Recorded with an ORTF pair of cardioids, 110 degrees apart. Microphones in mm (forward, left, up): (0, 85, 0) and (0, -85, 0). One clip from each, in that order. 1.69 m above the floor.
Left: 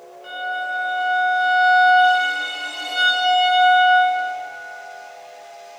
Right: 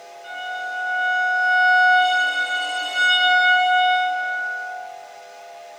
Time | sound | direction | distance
0.2 | a violin | 10° left | 0.7 m